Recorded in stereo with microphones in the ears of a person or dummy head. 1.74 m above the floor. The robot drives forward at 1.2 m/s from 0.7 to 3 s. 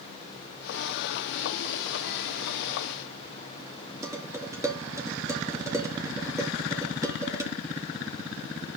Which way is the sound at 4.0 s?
15° right (ahead or behind).